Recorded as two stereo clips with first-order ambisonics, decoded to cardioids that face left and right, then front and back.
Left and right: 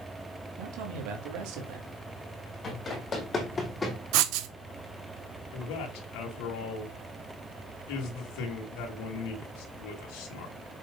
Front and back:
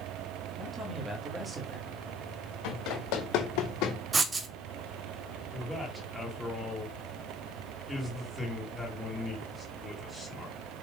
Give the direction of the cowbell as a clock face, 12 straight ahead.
No cowbell in this recording.